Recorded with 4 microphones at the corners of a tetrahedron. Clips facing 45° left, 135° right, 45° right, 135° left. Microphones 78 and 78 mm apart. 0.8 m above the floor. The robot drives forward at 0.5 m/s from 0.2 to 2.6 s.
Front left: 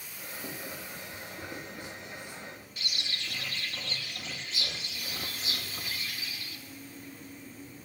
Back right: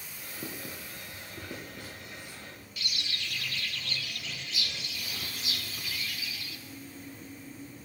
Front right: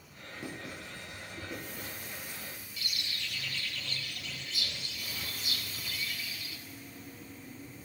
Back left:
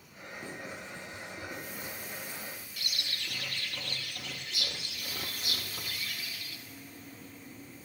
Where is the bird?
105° left, 1.5 m.